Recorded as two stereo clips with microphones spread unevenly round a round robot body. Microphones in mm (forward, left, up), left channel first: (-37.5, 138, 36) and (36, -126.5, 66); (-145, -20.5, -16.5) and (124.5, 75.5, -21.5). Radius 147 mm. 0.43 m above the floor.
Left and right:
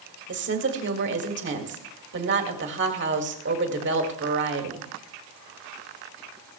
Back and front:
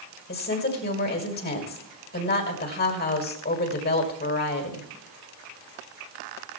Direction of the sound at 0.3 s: 110° right.